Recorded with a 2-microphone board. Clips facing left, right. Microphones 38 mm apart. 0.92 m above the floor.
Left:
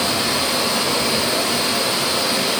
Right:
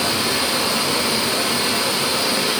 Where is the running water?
10° right (ahead or behind), 7.5 m.